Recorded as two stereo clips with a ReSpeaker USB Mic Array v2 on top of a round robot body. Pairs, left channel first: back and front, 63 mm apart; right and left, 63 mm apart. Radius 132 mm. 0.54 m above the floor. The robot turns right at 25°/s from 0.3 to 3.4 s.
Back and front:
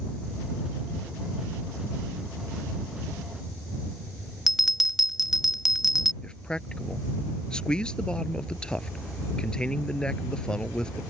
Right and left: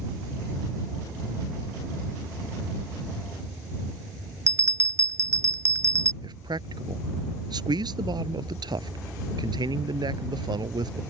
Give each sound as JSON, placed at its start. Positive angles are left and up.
{"t": 4.5, "sound": "a bell", "azimuth_deg": 85}
{"t": 6.2, "sound": "a man speaking", "azimuth_deg": 100}